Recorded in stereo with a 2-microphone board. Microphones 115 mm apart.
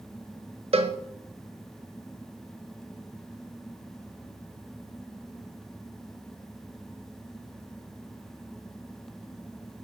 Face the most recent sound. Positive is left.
turn(degrees=-60)  # may be behind; listen again after turning